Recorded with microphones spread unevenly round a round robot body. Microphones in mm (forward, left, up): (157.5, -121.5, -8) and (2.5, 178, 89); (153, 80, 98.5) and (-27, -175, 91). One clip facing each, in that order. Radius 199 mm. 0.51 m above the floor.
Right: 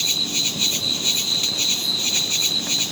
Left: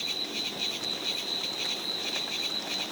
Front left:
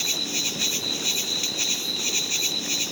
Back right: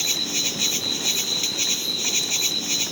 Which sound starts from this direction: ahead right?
An insect, at 0.0 s.